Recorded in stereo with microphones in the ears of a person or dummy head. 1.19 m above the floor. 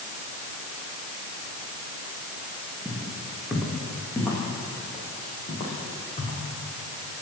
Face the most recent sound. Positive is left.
turn(degrees=40)  # may be behind; listen again after turning